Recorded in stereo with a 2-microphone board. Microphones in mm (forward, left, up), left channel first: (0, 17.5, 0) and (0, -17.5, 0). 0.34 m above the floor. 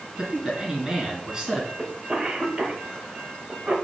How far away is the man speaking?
About 2.5 m.